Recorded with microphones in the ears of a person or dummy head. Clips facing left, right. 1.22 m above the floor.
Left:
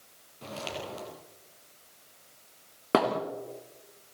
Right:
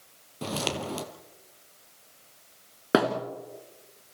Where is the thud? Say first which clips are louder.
Right 2 dB; 15° right (ahead or behind), 2.0 m.